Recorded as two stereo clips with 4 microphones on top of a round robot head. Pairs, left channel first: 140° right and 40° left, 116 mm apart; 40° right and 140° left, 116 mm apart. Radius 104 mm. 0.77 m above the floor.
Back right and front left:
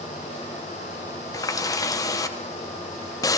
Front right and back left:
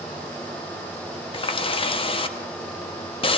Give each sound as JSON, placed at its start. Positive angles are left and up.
{"t": 1.3, "sound": "a running tap", "azimuth_deg": -80, "distance_m": 0.9}